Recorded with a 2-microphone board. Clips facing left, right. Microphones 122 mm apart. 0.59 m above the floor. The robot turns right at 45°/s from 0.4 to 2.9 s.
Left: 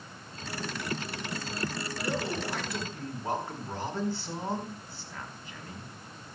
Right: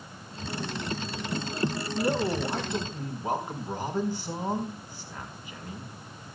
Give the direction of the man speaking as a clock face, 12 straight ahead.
2 o'clock.